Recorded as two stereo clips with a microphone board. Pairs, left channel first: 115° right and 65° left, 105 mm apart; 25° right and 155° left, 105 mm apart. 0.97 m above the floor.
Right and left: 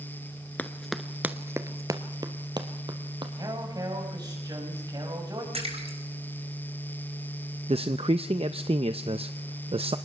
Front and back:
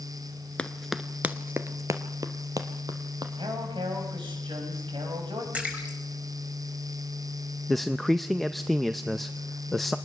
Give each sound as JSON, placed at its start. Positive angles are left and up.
{"t": 0.6, "sound": "running footsteps", "azimuth_deg": -80, "distance_m": 0.9}
{"t": 3.4, "sound": "a man speaking", "azimuth_deg": 120, "distance_m": 6.0}
{"t": 5.5, "sound": "a splash", "azimuth_deg": 80, "distance_m": 4.5}
{"t": 7.7, "sound": "a man speaking", "azimuth_deg": 65, "distance_m": 0.6}